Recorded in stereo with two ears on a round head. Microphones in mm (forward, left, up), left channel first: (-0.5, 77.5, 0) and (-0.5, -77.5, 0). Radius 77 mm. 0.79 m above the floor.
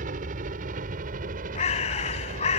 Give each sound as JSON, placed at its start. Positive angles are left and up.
{"t": 0.0, "sound": "a helicopter", "side_deg": -50}
{"t": 1.6, "sound": "a bird", "side_deg": 40}